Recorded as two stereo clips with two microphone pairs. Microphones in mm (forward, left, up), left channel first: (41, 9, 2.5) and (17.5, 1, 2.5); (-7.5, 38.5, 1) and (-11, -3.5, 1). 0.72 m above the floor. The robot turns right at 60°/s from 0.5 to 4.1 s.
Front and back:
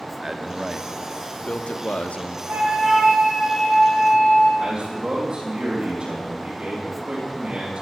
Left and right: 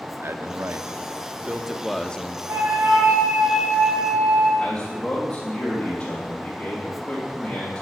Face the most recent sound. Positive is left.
turn(degrees=145)